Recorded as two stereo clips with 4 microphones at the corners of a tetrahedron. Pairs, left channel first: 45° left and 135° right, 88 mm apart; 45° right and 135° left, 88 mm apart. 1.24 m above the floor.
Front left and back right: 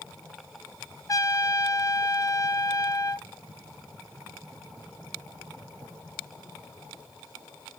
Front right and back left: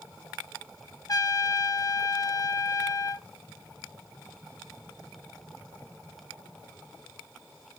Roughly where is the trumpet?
Ahead.